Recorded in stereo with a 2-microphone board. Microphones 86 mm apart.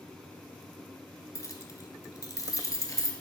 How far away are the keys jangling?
About 1.0 m.